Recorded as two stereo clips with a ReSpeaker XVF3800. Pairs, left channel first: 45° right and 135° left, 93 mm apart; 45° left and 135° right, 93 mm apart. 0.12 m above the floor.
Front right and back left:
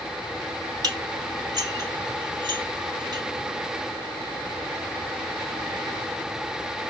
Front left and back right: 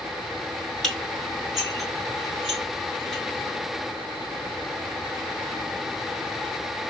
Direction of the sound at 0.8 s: 135° left.